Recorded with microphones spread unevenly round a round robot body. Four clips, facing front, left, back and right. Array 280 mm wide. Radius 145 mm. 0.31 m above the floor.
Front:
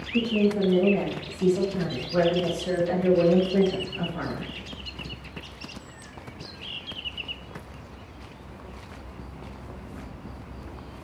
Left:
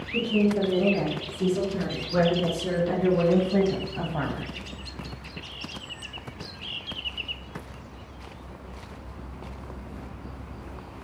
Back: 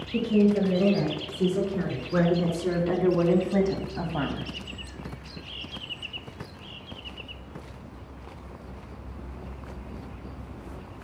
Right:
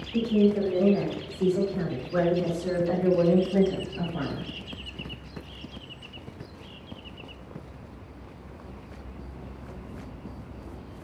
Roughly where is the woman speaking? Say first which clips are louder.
Right 1 dB, back 1 dB; behind.